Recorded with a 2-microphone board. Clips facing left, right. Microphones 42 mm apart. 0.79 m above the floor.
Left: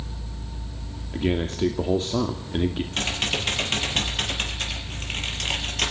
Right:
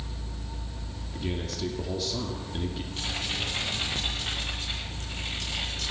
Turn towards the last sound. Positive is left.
turn(degrees=80)